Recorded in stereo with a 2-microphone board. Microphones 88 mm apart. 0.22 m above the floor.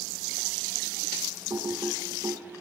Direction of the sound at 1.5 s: 45° right (ahead or behind).